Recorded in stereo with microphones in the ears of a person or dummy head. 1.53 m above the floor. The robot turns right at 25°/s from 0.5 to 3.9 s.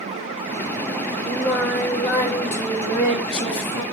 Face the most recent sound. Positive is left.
turn(degrees=55)